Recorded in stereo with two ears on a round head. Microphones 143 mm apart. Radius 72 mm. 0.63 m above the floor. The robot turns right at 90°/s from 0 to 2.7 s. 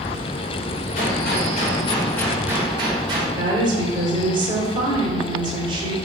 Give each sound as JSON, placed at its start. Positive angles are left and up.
{"t": 0.9, "sound": "a gunshot", "azimuth_deg": 55, "distance_m": 2.5}
{"t": 3.4, "sound": "a woman speaking", "side_deg": -30, "distance_m": 2.0}